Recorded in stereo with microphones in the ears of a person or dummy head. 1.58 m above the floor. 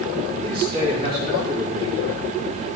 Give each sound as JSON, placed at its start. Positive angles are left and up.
{"t": 0.4, "sound": "a man speaking", "side_deg": -55, "distance_m": 4.0}